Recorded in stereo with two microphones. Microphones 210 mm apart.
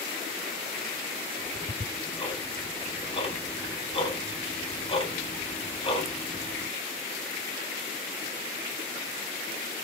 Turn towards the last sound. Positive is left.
turn(degrees=30)  # may be behind; listen again after turning